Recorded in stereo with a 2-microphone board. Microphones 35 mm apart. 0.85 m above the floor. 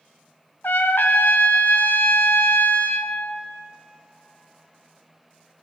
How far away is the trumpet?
About 0.7 m.